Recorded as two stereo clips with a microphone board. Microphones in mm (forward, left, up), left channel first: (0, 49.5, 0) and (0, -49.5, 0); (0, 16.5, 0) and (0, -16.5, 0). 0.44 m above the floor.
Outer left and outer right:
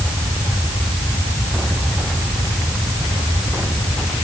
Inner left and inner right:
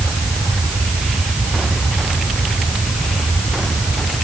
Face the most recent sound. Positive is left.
No sound to turn to.